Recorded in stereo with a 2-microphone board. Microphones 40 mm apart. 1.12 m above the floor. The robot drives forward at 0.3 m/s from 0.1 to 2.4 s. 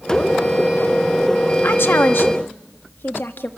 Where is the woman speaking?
70° left (ahead or behind), 1.3 m; by 3.5 s 65° left (ahead or behind), 1.4 m.